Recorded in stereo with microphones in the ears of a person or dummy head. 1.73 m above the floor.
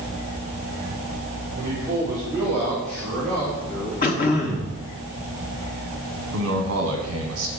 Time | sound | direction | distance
1.6 | a man speaking | 25° right (ahead or behind) | 2 m
4.0 | throat clearing | 40° left (ahead or behind) | 1.0 m
6.3 | a man speaking | 65° right (ahead or behind) | 1.3 m